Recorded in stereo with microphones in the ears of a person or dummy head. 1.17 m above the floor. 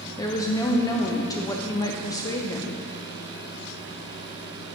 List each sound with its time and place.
0.2 s a woman speaking: 20° left (ahead or behind), 0.6 m